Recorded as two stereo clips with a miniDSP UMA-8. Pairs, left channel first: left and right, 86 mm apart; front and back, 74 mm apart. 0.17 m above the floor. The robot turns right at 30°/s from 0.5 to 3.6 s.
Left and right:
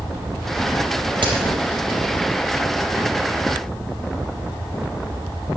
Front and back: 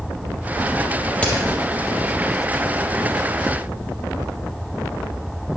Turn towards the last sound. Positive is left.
turn(degrees=0)